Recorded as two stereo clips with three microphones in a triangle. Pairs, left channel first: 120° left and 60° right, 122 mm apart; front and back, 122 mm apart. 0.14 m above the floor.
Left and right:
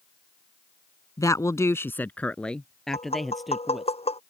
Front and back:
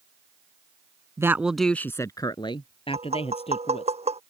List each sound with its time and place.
1.2 s a woman speaking: 145° left; by 3.9 s 30° left
2.9 s tapping: 150° left